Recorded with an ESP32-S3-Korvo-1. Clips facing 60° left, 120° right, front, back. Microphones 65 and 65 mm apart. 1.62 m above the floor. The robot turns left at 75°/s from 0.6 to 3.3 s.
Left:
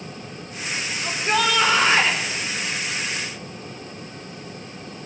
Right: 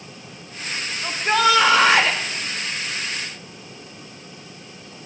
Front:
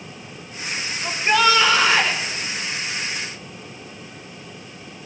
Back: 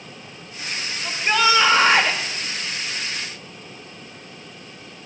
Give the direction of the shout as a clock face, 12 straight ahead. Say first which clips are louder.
Right 4 dB, front 2 dB; 2 o'clock.